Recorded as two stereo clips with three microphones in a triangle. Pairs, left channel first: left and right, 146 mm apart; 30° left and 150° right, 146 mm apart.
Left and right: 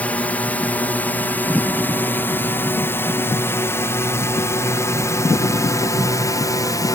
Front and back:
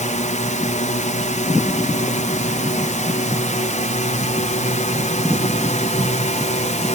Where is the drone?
10° left; by 7.0 s 30° left.